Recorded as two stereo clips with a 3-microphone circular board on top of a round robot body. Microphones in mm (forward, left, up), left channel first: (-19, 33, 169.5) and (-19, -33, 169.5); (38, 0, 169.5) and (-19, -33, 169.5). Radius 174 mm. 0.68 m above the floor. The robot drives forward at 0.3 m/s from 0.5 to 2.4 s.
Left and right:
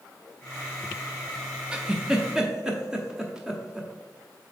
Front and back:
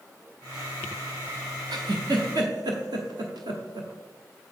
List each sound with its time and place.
1.7 s a giggle: 170° right, 0.6 m